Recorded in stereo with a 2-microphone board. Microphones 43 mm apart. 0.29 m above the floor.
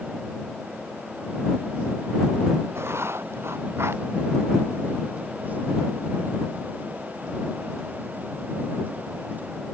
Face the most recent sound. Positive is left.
turn(degrees=-80)